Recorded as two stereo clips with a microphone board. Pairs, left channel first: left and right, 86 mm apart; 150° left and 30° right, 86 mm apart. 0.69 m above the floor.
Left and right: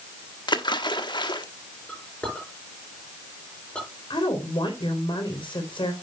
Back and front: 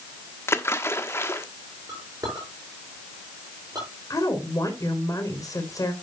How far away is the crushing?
No crushing in this recording.